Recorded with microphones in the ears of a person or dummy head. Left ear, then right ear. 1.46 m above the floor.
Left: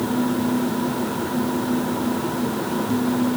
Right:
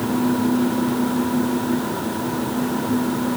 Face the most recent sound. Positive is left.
No sound to turn to.